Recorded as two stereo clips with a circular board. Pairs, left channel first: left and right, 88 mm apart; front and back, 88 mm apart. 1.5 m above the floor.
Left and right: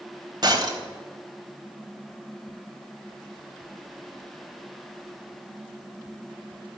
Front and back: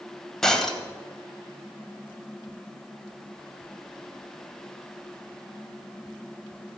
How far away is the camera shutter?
I don't hear a camera shutter.